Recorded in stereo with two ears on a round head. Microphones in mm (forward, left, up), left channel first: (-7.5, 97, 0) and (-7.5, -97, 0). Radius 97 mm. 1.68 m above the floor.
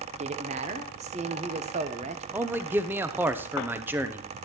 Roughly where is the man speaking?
Centre.